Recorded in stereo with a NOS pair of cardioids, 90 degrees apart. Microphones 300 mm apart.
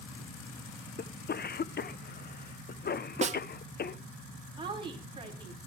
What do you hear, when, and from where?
1.0 s a cough: 35° left, 0.9 m
3.2 s a snare drum: 25° right, 0.8 m
4.6 s a woman speaking: 20° right, 5.5 m